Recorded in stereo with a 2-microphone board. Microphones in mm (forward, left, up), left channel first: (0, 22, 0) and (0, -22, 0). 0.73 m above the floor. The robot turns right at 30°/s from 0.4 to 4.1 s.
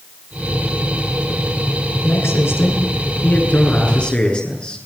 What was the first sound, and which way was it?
A man speaking, 95° left.